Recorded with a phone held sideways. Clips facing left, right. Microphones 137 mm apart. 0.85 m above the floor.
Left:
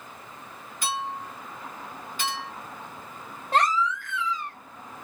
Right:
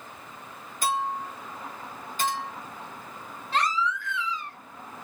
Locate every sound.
0.8 s a clink: 40° right (ahead or behind), 2.0 m
3.5 s a baby crying: 50° left (ahead or behind), 0.9 m